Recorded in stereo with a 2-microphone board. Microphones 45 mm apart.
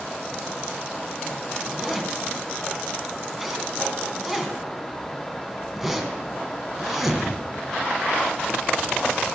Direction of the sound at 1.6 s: 5° right (ahead or behind).